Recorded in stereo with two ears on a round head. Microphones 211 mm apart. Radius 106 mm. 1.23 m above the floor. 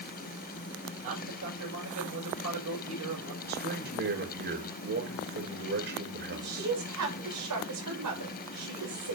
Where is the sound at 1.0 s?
70° right (ahead or behind), 5.5 m.